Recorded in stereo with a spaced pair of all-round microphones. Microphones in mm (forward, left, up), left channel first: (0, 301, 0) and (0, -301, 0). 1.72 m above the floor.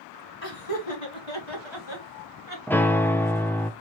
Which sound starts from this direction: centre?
A piano, at 2.7 s.